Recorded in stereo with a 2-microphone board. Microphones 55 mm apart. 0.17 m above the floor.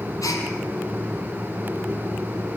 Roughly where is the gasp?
Left.